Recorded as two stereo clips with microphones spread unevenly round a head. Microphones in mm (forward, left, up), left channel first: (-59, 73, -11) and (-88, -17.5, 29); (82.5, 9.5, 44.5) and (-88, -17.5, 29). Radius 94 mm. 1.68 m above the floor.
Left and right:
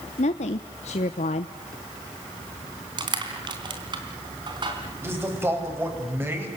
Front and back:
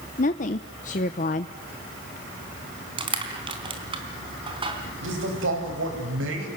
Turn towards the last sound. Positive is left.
turn(degrees=-170)